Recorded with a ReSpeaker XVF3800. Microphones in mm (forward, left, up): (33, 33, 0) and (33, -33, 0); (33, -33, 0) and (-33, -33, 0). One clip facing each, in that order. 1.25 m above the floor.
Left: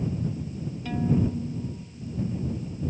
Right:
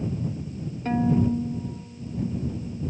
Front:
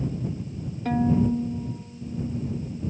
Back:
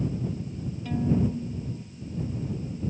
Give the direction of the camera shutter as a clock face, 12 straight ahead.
No camera shutter in this recording.